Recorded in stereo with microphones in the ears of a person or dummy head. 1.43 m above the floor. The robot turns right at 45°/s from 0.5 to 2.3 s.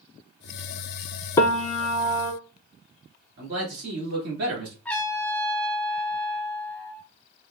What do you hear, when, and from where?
1.4 s a piano: 155° left, 0.5 m; by 2.3 s 160° right, 0.5 m
3.4 s a man speaking: 60° right (ahead or behind), 3 m
4.8 s a trumpet: 5° left (ahead or behind), 0.7 m